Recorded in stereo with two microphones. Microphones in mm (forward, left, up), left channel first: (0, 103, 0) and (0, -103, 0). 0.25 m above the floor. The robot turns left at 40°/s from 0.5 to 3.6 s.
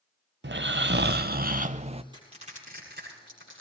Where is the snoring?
85° right, 0.7 m; by 2.0 s 145° right, 0.7 m.